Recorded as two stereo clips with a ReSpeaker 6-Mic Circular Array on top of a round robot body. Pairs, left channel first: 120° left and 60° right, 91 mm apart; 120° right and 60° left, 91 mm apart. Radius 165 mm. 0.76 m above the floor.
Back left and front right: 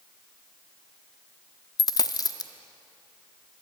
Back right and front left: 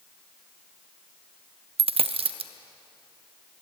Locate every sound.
1.8 s a dropped coin: 70° left, 0.6 m